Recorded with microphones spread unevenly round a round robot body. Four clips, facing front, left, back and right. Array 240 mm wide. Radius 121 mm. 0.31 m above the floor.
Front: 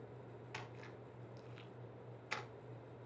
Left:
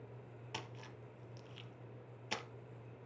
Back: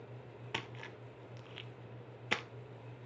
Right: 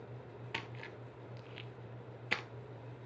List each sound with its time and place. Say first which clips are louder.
0.5 s a splash: right 3 dB, back 8 dB; 165° right, 1.4 m